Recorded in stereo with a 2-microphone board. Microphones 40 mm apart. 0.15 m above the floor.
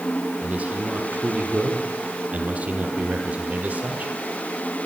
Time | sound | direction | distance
0.4 | a man speaking | 35° right (ahead or behind) | 5.5 m